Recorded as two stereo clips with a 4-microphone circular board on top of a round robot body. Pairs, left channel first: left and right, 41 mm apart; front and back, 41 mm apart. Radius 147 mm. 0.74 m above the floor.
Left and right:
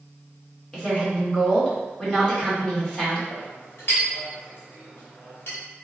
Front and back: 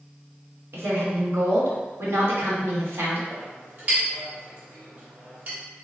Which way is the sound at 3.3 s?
130° left.